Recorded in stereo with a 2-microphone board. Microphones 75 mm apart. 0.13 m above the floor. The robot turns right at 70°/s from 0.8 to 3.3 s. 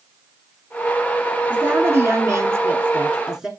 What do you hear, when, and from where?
1.5 s a woman speaking: 140° right, 1.5 m; by 3.5 s 15° right, 1.5 m